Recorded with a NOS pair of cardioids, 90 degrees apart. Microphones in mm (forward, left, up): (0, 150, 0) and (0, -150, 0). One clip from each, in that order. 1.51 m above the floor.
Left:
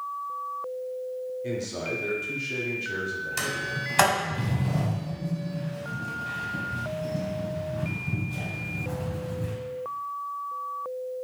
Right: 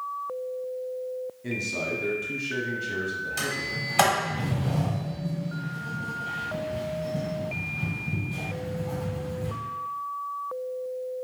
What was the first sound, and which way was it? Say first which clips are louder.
A man speaking: right 5 dB; 5° right.